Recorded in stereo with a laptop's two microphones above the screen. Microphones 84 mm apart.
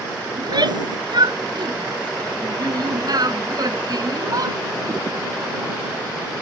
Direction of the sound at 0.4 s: 60° right (ahead or behind).